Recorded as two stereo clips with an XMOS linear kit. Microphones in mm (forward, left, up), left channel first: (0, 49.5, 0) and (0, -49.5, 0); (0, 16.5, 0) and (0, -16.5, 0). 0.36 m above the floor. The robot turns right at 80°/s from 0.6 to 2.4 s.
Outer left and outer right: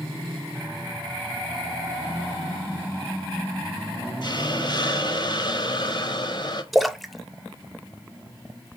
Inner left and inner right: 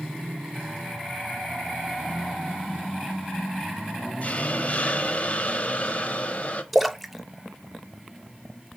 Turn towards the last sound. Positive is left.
turn(degrees=0)  # may be behind; listen again after turning